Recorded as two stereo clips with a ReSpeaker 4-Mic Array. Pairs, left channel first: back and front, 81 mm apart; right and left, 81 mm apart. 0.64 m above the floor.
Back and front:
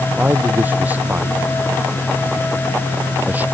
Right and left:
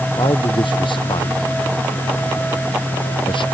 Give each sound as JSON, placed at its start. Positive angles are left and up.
{"t": 0.2, "sound": "a man speaking", "azimuth_deg": -70}